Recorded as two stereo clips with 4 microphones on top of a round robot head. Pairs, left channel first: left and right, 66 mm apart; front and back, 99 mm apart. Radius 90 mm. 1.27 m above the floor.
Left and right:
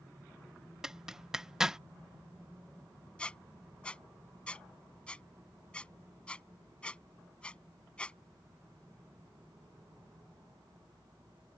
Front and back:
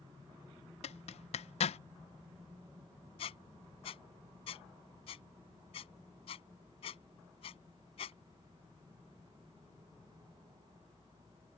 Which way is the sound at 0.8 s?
5° right.